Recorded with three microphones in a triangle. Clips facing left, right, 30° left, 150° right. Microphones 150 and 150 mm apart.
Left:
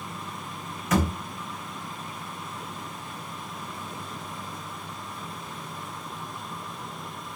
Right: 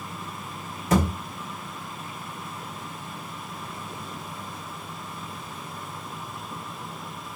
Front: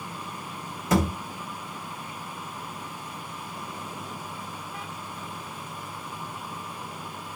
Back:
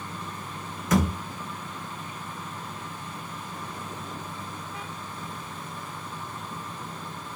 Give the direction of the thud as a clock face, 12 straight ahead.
1 o'clock.